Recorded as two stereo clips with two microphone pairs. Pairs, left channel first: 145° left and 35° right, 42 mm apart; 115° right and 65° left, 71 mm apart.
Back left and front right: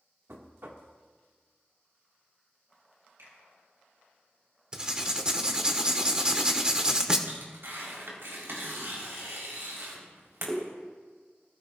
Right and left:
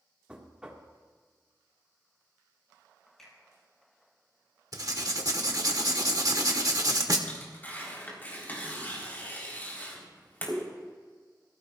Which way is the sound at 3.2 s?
35° right.